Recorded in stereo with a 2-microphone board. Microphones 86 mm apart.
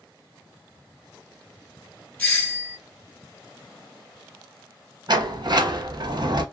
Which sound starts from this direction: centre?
A doorbell, at 2.2 s.